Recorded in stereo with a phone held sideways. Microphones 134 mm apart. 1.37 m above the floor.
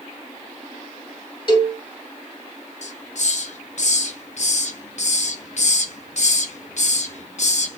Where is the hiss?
55° left (ahead or behind), 0.8 m.